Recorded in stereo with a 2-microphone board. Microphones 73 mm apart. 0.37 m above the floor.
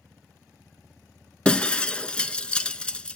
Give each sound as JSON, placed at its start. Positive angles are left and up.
{"t": 1.4, "sound": "breaking glass", "side_deg": 15, "distance_m": 0.6}